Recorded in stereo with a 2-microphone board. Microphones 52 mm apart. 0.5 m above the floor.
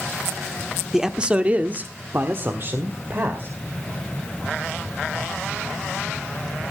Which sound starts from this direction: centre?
A man speaking, at 0.9 s.